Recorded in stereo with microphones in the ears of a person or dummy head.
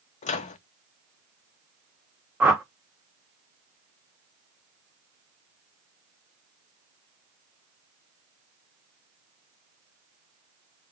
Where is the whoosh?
5° right (ahead or behind), 0.5 m.